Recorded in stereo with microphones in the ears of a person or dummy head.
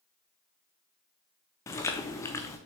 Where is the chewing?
15° left (ahead or behind), 0.7 m.